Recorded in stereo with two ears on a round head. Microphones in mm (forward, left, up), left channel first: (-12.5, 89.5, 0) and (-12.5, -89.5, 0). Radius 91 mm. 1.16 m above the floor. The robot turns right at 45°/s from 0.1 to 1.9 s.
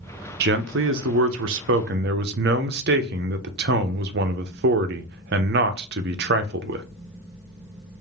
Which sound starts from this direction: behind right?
A man speaking, at 0.4 s.